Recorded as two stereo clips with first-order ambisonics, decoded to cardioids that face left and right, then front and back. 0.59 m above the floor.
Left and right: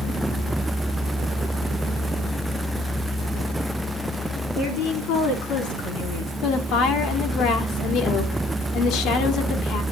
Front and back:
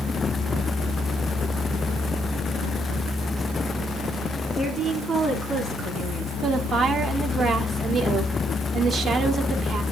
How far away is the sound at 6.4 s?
About 1.6 m.